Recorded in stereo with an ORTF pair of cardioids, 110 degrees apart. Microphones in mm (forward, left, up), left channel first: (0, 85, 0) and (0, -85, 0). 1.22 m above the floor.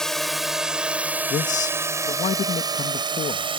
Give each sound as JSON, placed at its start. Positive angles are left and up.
{"t": 0.0, "sound": "a drone", "azimuth_deg": 0}
{"t": 1.3, "sound": "a man speaking", "azimuth_deg": 45}